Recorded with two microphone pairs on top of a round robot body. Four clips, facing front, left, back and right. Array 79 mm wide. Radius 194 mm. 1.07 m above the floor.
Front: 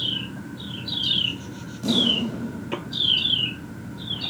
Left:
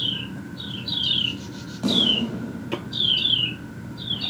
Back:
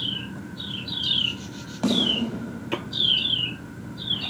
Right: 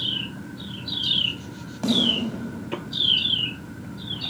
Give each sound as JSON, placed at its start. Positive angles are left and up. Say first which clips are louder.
{"t": 1.8, "sound": "a snare drum", "louder": "even, back 1 dB", "azimuth_deg": -160, "distance_m": 9.0}